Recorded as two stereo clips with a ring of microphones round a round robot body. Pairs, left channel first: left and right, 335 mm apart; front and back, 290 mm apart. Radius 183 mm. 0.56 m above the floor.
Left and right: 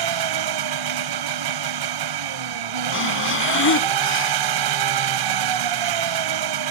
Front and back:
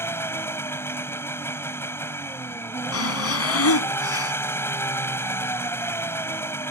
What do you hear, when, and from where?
0.0 s an engine running: 85° right
2.9 s breathing: 35° left